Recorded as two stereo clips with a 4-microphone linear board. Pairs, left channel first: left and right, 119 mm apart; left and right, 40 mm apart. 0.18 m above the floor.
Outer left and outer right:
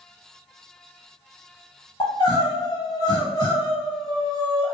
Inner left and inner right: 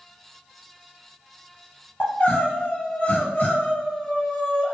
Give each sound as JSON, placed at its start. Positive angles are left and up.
{"t": 2.0, "sound": "crying", "side_deg": 40, "distance_m": 1.0}